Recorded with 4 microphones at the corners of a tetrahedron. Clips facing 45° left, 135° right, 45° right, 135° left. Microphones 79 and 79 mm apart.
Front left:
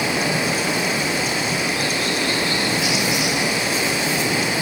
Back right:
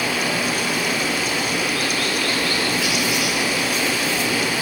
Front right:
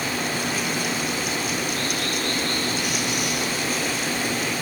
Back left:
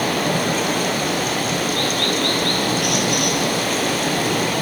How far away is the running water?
About 2.5 m.